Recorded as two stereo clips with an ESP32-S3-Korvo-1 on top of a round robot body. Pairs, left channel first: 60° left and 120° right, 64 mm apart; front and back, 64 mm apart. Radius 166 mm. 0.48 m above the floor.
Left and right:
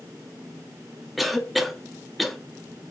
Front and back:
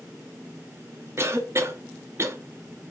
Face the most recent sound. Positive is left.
turn(degrees=150)